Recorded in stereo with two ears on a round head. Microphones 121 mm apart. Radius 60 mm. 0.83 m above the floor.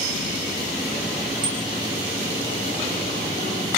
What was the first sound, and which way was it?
A bicycle bell, 35° right (ahead or behind).